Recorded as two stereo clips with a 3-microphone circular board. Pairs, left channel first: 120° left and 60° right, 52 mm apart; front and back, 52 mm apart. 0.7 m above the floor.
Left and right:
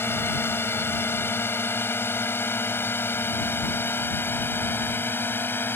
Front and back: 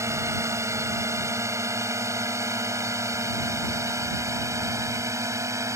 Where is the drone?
160° left; by 5.8 s 165° left.